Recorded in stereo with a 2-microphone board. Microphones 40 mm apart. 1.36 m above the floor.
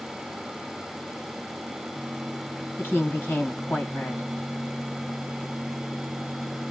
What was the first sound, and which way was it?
A woman speaking, 65° left (ahead or behind).